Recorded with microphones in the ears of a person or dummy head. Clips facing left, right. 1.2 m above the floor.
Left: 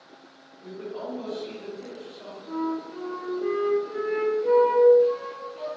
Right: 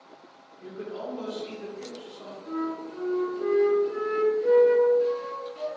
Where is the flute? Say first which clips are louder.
Left 2 dB; 15° right (ahead or behind), 0.9 m.